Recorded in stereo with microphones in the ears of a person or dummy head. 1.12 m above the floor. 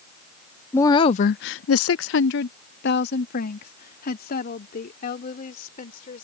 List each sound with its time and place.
0.7 s a woman speaking: 10° left (ahead or behind); by 6.2 s 45° left (ahead or behind)